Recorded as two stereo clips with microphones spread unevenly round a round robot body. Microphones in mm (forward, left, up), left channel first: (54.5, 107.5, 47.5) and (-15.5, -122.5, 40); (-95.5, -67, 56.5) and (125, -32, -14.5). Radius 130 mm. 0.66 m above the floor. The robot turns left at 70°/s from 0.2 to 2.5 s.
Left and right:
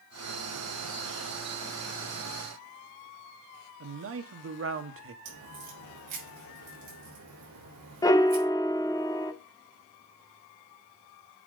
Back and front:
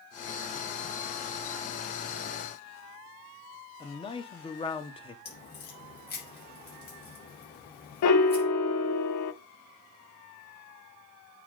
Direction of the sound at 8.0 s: 150° left.